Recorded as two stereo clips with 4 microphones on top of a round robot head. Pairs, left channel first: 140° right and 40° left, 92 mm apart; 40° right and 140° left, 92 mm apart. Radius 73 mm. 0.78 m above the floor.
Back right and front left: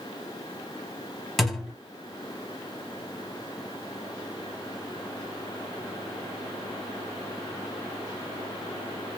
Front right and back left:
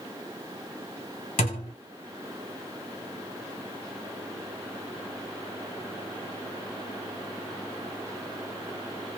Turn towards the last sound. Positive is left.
turn(degrees=-55)